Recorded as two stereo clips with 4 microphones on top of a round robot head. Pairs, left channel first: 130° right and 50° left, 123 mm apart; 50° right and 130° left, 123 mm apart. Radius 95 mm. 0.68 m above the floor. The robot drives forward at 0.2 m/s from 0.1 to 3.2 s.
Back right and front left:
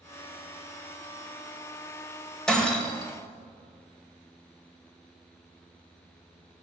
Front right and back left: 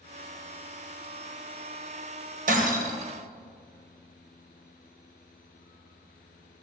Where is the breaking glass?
145° left, 2 m.